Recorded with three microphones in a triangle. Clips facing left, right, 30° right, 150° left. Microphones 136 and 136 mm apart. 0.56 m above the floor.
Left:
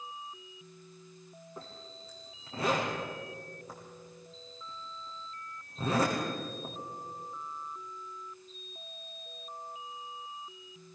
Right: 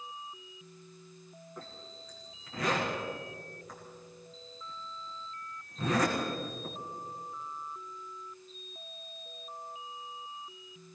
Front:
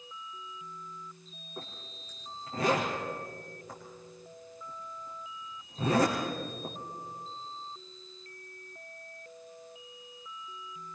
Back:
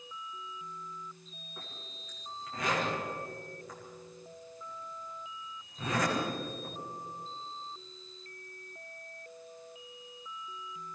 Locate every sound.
1.6 s a zipper: 30° left, 6.5 m